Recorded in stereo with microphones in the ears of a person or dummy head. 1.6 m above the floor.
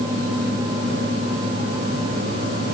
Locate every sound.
Only background noise.